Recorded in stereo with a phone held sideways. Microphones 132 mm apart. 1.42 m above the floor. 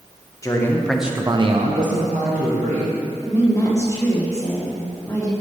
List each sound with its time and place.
0.4 s a man speaking: 25° left (ahead or behind), 0.9 m; by 3.0 s 70° right (ahead or behind), 1.5 m
3.2 s a woman speaking: 20° left (ahead or behind), 1.5 m